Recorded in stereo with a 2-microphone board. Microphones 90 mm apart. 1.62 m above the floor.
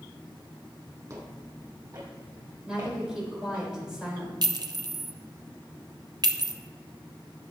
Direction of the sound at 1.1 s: 35° right (ahead or behind).